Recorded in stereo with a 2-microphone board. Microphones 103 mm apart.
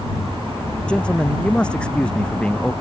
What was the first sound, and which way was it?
A man speaking, 10° left (ahead or behind).